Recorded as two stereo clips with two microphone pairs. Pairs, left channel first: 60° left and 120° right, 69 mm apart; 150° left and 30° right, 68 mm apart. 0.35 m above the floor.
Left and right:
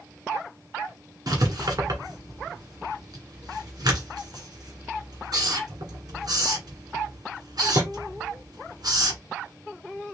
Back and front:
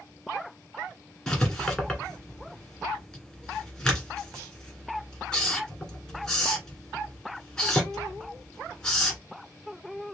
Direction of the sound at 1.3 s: 130° right.